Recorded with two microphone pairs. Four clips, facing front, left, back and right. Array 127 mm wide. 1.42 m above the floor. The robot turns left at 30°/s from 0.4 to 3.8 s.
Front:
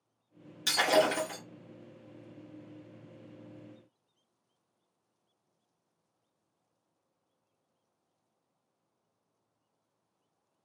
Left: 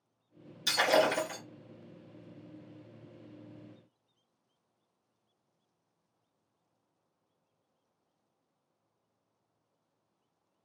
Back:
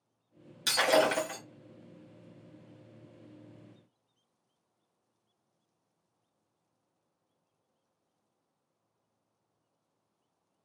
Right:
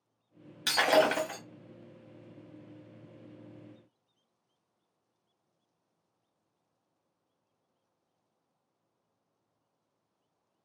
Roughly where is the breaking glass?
Right.